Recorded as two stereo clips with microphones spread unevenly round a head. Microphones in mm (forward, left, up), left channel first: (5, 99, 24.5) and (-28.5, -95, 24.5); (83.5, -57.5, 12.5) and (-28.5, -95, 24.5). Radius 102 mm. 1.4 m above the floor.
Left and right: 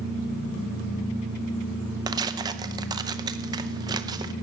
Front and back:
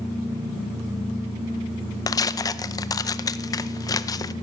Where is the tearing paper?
35° right, 0.6 m.